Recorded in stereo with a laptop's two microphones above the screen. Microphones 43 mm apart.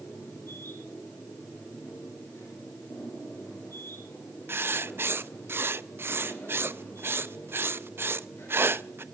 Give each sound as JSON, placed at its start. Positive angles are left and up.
{"t": 0.0, "sound": "a machine running", "side_deg": 85, "distance_m": 9.5}
{"t": 4.5, "sound": "writing", "side_deg": -60, "distance_m": 0.5}